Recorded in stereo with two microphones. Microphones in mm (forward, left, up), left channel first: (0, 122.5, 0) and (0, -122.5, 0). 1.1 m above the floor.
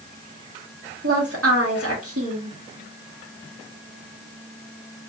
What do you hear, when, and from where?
1.0 s a woman speaking: 70° right (ahead or behind), 1.3 m